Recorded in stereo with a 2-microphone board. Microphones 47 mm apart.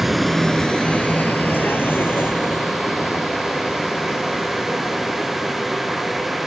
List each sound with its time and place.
0.0 s a vehicle: 5° right (ahead or behind); by 6.5 s 70° left (ahead or behind)